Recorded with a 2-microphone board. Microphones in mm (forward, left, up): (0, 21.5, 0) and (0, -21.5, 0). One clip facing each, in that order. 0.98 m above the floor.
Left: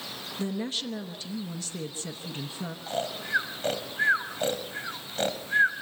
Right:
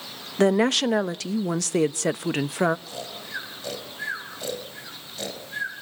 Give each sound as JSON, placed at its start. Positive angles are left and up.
{"t": 0.4, "sound": "a woman speaking", "side_deg": -70, "distance_m": 0.8}
{"t": 2.9, "sound": "snoring", "side_deg": 35, "distance_m": 2.5}